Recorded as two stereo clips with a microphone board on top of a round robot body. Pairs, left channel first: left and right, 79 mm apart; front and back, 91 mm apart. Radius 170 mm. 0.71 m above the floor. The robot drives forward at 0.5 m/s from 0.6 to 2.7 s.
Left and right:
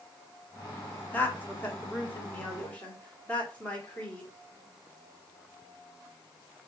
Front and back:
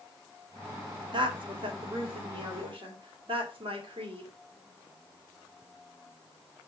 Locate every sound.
1.1 s a woman speaking: 155° left, 2 m; by 4.3 s 165° left, 2.5 m